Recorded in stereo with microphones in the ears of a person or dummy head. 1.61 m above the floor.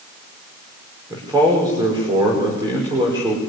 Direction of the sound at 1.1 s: 20° right (ahead or behind).